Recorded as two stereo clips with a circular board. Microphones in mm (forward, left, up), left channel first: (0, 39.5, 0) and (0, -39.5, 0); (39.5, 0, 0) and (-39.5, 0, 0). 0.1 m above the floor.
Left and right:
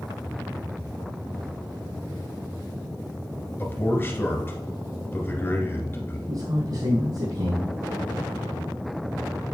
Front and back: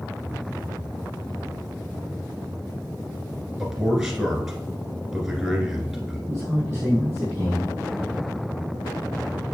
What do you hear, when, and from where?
3.6 s a man speaking: 100° left, 1.6 m
6.3 s a man speaking: 110° right, 3.5 m